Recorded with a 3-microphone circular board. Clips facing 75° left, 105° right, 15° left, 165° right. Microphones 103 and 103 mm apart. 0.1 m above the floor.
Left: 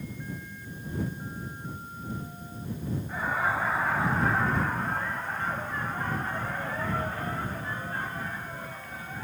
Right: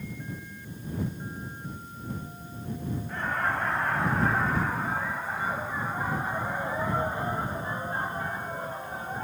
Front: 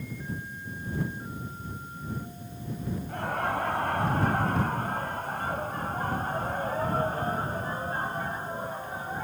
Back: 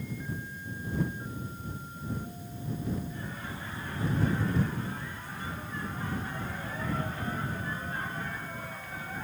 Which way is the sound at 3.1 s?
10° right.